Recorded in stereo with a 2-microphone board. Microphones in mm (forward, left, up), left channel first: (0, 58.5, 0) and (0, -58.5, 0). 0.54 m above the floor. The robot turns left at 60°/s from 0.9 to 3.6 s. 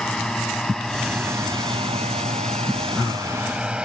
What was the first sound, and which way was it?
A drone, 5° left (ahead or behind).